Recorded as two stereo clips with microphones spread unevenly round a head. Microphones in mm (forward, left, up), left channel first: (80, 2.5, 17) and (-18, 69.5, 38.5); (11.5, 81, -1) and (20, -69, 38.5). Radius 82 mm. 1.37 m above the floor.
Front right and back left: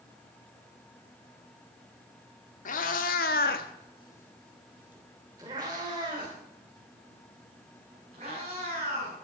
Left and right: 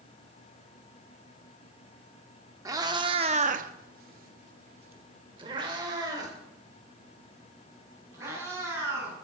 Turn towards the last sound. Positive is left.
turn(degrees=-160)